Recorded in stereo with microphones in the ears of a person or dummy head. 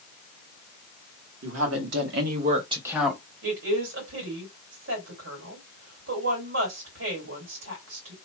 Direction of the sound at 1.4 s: 80° right.